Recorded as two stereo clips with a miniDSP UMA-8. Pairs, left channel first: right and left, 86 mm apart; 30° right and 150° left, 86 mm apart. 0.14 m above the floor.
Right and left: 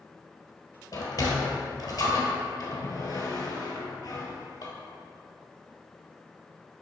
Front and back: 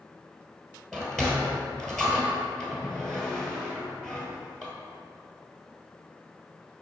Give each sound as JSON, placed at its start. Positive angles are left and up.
{"t": 0.9, "sound": "a sliding door", "azimuth_deg": -110, "distance_m": 1.4}